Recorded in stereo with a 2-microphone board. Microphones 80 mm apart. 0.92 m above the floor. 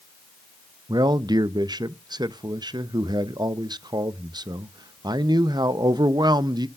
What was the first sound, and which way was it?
A man speaking, 60° right (ahead or behind).